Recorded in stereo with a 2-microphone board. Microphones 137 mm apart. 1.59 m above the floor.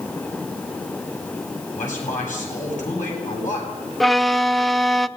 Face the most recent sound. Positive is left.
turn(degrees=0)  # may be behind; listen again after turning